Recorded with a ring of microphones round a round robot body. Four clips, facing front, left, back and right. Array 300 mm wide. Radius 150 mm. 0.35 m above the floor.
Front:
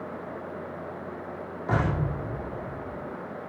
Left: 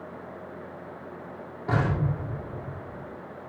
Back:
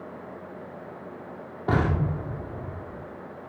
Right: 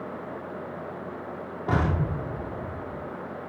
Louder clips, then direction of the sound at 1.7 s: Even, back 2 dB; 170° right.